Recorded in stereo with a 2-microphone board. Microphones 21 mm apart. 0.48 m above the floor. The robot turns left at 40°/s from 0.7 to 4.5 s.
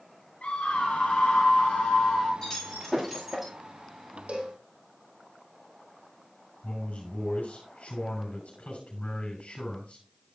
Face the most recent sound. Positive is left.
turn(degrees=80)